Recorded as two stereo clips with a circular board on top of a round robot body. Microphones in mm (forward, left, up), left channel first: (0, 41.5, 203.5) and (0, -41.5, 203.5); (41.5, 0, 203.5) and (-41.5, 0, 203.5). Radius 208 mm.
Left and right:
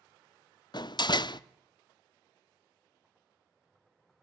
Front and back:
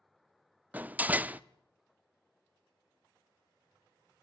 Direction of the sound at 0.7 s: 110° left.